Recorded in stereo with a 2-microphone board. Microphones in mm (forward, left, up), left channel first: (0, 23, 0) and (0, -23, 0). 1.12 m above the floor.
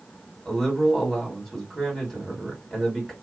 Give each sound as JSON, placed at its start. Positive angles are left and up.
{"t": 0.5, "sound": "a man speaking", "side_deg": 5, "distance_m": 2.0}